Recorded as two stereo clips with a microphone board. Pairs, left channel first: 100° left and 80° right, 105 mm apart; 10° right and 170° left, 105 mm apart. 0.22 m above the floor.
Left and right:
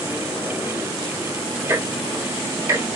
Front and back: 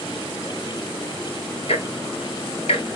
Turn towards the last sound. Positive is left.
turn(degrees=-15)